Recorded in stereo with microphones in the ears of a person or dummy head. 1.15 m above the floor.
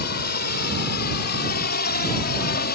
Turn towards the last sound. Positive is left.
turn(degrees=45)  # may be behind; listen again after turning